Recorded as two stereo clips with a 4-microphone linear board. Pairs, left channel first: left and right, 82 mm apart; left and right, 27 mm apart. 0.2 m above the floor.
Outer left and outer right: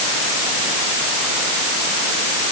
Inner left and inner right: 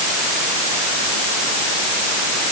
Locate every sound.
Only background noise.